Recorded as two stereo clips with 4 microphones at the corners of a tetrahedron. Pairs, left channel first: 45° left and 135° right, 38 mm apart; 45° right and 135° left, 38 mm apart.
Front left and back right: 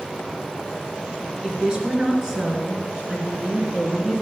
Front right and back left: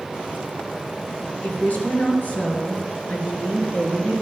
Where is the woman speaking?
70° right, 3 m; by 4.2 s 40° right, 2.0 m.